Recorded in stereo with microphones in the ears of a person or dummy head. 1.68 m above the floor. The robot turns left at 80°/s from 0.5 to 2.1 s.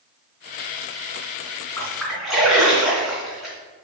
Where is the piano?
I don't hear a piano.